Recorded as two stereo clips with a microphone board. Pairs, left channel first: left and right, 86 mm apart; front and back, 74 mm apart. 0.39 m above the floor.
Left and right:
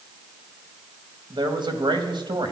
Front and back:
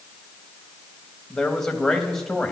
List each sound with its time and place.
1.3 s a man speaking: 85° right, 2 m